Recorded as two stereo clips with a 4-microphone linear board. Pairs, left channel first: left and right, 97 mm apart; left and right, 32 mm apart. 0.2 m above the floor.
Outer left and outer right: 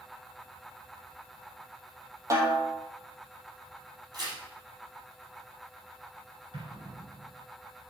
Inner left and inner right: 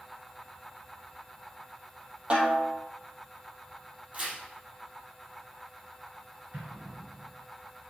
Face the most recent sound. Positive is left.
turn(degrees=-65)  # may be behind; listen again after turning